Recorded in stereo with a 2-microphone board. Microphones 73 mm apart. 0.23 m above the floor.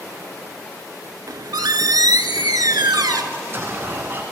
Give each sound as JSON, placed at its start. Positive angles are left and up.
{"t": 1.3, "sound": "a squeak", "side_deg": -75, "distance_m": 0.6}
{"t": 3.3, "sound": "an explosion", "side_deg": -35, "distance_m": 1.1}